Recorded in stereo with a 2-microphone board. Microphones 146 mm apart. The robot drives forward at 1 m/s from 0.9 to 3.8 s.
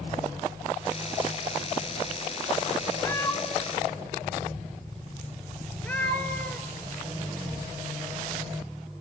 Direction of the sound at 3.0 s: 20° left (ahead or behind).